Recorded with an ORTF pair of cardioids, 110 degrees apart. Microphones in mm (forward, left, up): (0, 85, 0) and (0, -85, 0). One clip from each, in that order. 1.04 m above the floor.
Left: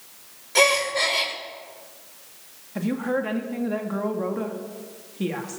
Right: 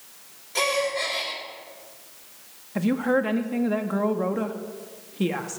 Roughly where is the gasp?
Ahead left.